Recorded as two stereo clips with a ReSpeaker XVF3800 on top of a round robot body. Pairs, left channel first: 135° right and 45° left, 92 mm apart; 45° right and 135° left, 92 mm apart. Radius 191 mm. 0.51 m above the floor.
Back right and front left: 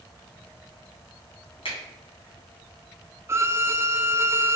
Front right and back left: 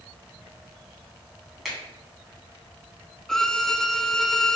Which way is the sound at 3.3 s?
35° left.